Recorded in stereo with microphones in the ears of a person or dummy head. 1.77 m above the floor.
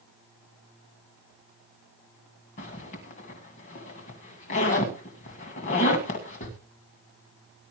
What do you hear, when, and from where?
2.6 s a zipper: 30° left (ahead or behind), 2 m